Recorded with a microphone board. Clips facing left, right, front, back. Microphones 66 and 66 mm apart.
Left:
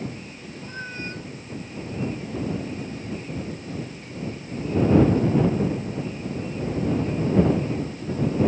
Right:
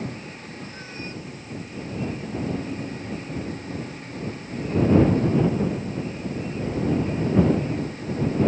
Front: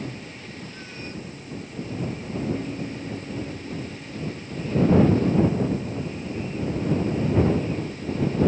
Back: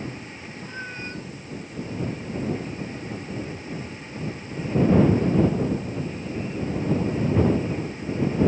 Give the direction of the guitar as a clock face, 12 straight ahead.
1 o'clock.